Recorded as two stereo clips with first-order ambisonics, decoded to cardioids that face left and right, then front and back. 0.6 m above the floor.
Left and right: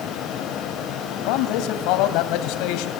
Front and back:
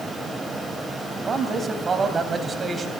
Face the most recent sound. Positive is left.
turn(degrees=110)